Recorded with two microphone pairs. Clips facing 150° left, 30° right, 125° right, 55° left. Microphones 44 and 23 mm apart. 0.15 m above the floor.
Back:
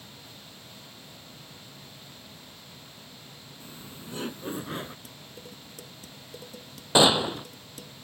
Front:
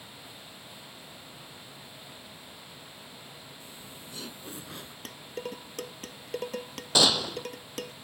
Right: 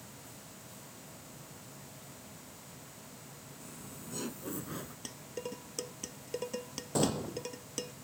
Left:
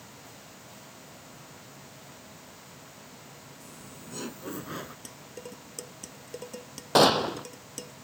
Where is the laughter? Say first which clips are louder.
Back 2 dB, even; 160° left; by 5.0 s 110° left.